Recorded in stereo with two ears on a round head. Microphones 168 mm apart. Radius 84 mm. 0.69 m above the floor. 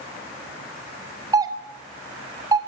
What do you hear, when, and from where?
1.3 s a doorbell: 20° right (ahead or behind), 2.5 m